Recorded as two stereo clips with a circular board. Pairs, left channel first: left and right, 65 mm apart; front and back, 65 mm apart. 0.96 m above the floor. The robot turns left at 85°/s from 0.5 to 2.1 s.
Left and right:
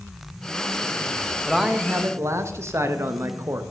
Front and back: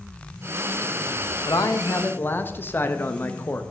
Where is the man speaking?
Straight ahead, 0.8 m; by 3.6 s 55° right, 0.8 m.